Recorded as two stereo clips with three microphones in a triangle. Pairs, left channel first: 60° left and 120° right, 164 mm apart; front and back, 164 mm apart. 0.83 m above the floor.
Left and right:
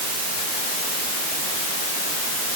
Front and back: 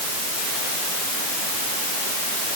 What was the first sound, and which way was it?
Only background noise.